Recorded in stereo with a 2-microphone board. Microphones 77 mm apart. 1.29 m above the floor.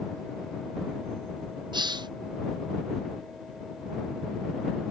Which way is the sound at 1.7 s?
75° right (ahead or behind).